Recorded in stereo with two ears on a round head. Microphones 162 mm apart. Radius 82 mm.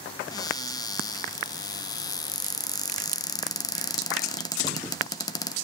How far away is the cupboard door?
About 0.6 m.